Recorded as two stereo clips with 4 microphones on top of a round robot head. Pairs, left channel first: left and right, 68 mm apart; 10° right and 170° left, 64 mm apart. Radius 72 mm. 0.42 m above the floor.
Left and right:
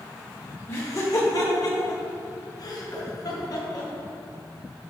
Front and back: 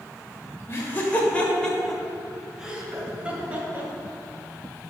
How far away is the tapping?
About 2.5 m.